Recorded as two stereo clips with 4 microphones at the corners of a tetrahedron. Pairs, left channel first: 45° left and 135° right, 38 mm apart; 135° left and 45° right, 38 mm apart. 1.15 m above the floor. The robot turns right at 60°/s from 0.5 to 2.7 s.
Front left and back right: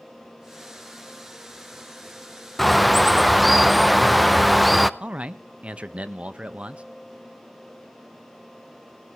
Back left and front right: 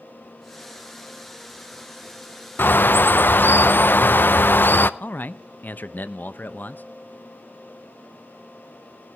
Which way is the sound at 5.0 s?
165° left.